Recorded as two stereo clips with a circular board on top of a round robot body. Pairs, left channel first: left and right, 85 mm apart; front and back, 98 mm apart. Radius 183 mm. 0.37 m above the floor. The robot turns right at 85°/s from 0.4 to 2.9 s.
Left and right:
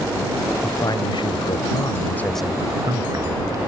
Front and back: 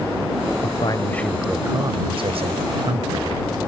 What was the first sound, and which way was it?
A man speaking, 25° left.